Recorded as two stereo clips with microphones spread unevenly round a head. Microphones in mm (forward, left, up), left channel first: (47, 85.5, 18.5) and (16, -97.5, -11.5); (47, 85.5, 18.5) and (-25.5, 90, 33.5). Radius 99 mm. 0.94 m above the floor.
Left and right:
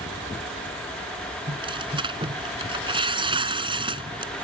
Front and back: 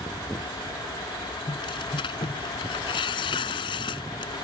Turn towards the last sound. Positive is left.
turn(degrees=-35)